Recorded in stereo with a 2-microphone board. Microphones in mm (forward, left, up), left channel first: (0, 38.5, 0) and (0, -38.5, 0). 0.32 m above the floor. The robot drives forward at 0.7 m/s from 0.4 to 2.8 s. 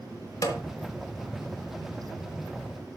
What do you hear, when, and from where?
0.4 s a snare drum: 45° left (ahead or behind), 1.8 m; by 0.6 s 50° left (ahead or behind), 1.7 m